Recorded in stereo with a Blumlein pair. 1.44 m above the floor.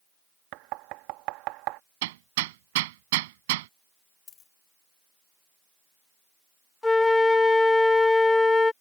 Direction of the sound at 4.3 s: 20° left.